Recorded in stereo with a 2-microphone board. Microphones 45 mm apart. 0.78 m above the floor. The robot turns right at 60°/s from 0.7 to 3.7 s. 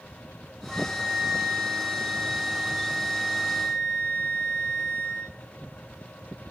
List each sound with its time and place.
0.7 s a flute: 160° left, 7 m; by 5.3 s 20° right, 7 m